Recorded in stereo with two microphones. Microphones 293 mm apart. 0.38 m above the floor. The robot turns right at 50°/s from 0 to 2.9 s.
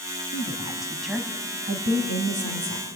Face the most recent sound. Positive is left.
turn(degrees=-90)